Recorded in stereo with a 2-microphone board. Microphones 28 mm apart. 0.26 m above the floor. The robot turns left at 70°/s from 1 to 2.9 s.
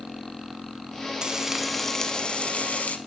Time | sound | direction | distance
1.2 | frying | 150° right | 0.6 m